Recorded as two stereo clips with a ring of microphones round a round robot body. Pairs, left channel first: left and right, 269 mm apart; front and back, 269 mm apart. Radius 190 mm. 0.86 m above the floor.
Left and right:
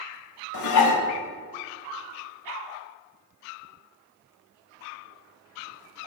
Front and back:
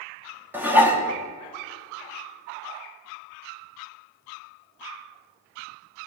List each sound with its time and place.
0.5 s dishes clattering: 95° left, 1.1 m